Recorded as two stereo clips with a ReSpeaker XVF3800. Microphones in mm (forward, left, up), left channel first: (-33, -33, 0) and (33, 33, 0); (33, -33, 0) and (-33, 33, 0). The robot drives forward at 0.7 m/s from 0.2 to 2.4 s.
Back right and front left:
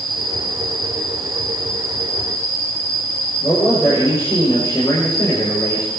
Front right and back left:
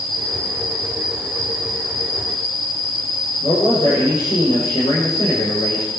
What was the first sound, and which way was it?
An insect, 50° right.